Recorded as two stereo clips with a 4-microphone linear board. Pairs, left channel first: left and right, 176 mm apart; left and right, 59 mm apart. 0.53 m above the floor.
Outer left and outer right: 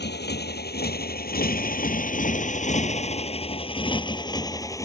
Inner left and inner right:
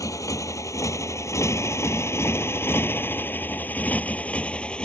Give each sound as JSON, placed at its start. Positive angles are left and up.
{"t": 0.0, "sound": "a motorcycle", "side_deg": 70}